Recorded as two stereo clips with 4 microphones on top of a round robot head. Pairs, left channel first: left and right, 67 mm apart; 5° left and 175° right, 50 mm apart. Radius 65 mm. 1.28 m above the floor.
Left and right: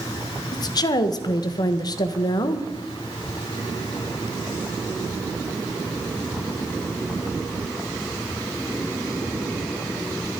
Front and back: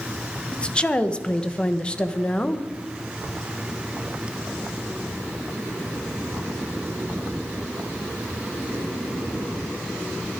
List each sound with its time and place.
0.5 s a woman speaking: 75° left, 1.3 m